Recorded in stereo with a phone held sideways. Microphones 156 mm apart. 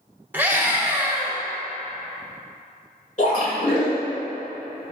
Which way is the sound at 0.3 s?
10° right (ahead or behind).